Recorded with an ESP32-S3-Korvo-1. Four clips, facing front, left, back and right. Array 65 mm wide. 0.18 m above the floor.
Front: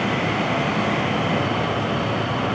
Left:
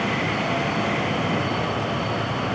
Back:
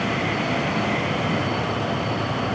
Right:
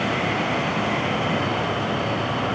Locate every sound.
Only background noise.